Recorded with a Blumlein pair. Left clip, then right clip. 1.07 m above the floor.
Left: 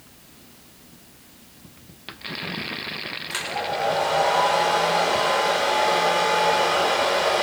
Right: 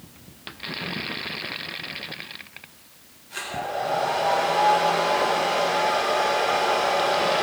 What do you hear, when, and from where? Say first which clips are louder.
3.3 s a hair dryer: left 1 dB; 35° left, 4.5 m